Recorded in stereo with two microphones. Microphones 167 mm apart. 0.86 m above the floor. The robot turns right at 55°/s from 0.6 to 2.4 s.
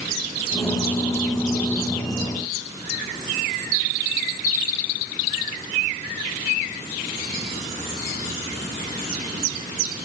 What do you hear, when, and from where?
Only background noise.